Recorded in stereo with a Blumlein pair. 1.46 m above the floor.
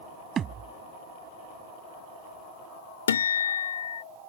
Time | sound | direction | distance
0.4 | a thud | 25° right | ?
3.1 | a guitar | 65° left | ?